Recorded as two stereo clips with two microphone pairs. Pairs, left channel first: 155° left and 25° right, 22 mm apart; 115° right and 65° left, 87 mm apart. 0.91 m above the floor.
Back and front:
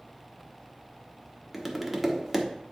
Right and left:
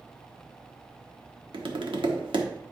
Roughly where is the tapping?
Ahead left.